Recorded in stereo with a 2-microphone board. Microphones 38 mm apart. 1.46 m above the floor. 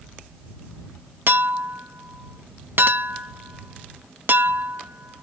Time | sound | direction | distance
1.3 | a clink | 65° right (ahead or behind) | ?